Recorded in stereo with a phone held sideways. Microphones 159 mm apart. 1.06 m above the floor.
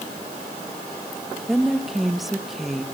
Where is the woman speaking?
Centre (ahead or behind), 1.1 m.